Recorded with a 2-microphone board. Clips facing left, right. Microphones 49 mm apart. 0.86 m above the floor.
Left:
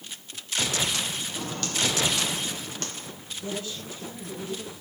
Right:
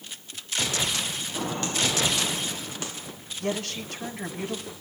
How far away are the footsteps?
About 2 m.